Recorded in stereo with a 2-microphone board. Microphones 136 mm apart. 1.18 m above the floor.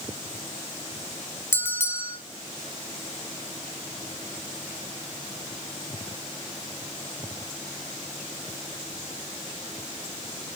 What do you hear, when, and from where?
1.5 s a bell: 20° left (ahead or behind), 0.5 m